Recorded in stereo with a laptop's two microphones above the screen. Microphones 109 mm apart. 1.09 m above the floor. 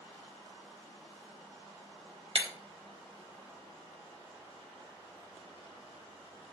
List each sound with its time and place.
2.4 s breaking glass: 60° right (ahead or behind), 1.6 m